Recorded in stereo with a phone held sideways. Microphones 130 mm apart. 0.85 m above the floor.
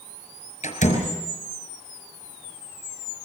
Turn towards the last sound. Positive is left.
turn(degrees=70)  # may be behind; listen again after turning